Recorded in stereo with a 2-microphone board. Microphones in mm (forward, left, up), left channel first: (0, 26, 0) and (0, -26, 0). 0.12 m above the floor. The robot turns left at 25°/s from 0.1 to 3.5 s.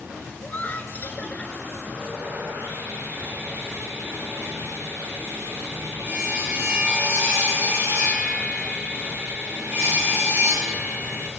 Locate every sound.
0.4 s laughter: 40° left (ahead or behind), 1.3 m; by 1.5 s 25° left (ahead or behind), 1.3 m
1.9 s sawing: 85° right, 4 m; by 11.3 s 130° right, 4 m